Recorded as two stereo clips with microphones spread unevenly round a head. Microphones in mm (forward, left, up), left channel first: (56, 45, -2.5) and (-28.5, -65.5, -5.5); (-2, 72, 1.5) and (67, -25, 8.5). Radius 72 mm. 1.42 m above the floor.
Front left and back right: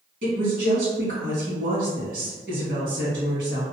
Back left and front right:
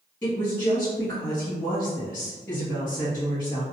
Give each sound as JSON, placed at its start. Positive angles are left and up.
{"t": 0.2, "sound": "a woman speaking", "azimuth_deg": -155, "distance_m": 1.7}